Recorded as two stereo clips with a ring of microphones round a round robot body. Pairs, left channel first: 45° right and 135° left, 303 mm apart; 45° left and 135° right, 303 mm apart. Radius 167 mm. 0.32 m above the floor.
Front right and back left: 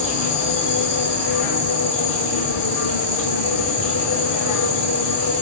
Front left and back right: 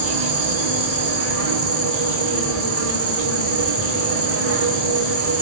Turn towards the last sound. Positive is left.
turn(degrees=-90)